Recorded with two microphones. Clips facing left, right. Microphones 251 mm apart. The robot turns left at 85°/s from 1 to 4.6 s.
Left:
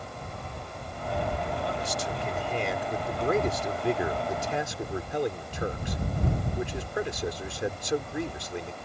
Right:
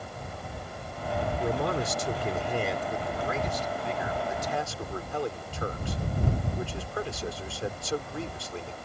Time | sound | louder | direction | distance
1.4 | a man speaking | right 4 dB | 70° right | ?